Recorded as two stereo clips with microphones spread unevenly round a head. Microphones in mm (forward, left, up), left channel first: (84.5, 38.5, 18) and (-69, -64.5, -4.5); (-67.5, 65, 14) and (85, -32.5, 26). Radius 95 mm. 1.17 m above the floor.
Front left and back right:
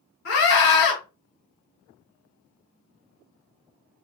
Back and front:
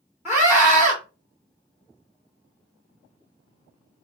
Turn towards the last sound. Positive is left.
turn(degrees=45)